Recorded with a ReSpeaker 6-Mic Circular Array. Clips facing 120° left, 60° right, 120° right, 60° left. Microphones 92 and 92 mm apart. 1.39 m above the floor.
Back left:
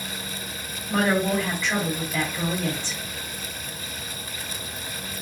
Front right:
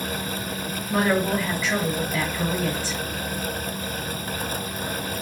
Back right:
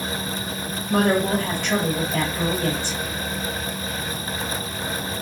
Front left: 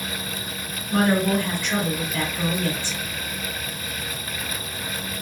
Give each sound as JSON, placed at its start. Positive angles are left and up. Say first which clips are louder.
{"t": 0.9, "sound": "a woman speaking", "louder": "even, back right 1 dB", "azimuth_deg": -145, "distance_m": 2.5}